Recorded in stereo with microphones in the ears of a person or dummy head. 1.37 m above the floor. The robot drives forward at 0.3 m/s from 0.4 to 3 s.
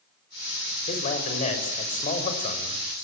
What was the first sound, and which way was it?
A man speaking, 40° left (ahead or behind).